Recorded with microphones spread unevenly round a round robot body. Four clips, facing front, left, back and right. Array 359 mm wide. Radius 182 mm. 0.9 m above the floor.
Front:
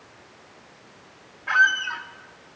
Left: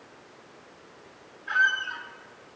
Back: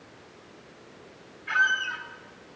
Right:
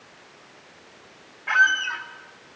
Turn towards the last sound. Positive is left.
turn(degrees=-40)